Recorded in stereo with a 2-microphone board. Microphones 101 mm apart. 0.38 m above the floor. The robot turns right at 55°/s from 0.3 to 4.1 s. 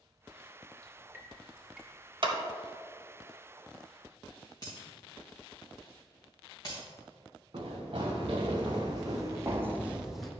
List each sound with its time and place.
0.8 s dripping: 30° right (ahead or behind), 1.7 m; by 1.9 s 5° right (ahead or behind), 1.7 m
2.2 s a clap: 50° right (ahead or behind), 1.0 m
4.6 s breaking glass: 40° left (ahead or behind), 3 m
7.5 s running footsteps: 55° right (ahead or behind), 2 m; by 10.3 s 5° left (ahead or behind), 1.0 m